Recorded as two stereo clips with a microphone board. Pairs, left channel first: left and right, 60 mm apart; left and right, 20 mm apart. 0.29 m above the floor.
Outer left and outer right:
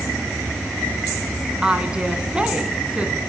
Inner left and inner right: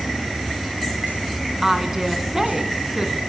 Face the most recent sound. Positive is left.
turn(degrees=-20)  # may be behind; listen again after turning